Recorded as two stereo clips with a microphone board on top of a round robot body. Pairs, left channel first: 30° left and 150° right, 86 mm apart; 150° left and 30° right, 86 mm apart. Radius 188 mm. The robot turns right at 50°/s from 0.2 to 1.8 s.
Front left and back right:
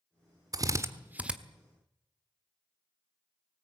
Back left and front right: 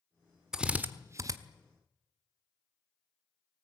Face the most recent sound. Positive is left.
turn(degrees=-50)